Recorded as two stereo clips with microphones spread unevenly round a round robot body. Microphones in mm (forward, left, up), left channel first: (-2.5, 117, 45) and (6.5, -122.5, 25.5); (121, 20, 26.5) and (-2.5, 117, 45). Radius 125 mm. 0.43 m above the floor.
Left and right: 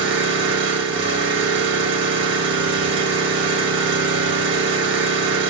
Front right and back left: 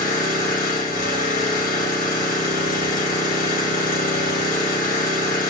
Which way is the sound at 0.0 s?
55° right.